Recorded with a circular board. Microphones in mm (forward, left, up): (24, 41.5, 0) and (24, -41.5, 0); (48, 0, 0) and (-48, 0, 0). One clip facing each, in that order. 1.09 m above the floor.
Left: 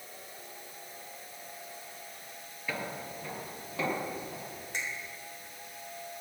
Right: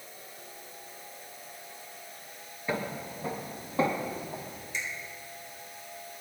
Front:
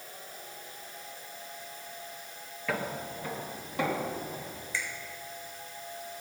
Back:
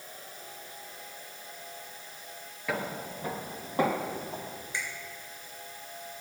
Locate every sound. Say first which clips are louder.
2.7 s footsteps: right 4 dB, even; 105° right, 1.2 m; by 4.5 s 145° right, 3 m
4.7 s a finger snap: right 1 dB, front 1 dB; 115° left, 3.5 m